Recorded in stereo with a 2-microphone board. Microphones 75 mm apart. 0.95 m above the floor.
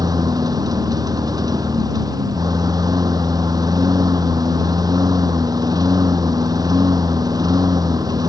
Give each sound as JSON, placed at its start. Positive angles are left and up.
{"t": 0.0, "sound": "a lawn mower", "side_deg": -60}